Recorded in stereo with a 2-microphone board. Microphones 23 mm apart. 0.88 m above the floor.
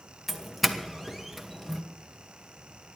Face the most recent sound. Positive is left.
turn(degrees=0)  # may be behind; listen again after turning